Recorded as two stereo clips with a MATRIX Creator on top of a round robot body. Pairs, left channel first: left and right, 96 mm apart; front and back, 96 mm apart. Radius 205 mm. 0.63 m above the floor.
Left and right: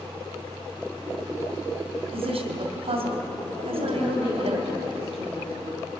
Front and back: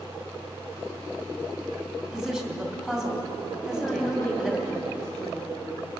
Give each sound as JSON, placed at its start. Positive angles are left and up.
{"t": 2.0, "sound": "a woman speaking", "azimuth_deg": -95, "distance_m": 2.5}
{"t": 3.6, "sound": "a woman speaking", "azimuth_deg": -70, "distance_m": 4.0}